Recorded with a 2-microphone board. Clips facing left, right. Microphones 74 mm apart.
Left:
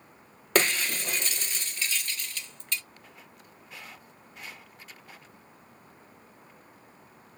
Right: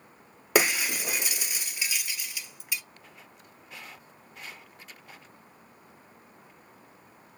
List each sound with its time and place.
0.6 s breaking glass: 10° right (ahead or behind), 0.6 m